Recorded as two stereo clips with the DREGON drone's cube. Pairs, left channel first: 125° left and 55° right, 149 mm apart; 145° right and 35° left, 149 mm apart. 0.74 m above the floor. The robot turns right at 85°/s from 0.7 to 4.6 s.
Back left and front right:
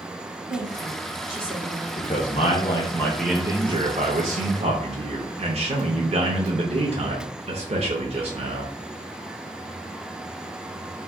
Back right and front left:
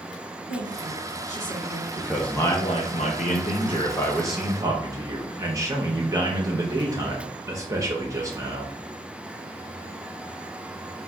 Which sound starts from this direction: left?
A man speaking, at 2.0 s.